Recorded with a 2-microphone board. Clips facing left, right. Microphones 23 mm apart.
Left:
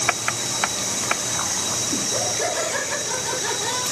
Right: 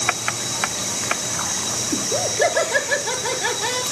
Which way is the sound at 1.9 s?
30° right (ahead or behind).